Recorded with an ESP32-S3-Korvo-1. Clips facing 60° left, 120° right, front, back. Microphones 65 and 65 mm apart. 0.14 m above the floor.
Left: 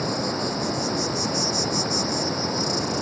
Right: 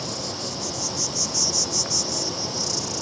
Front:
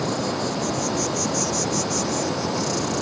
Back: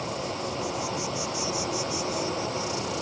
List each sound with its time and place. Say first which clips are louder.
0.0 s an insect: left 6 dB, front 7 dB; 15° left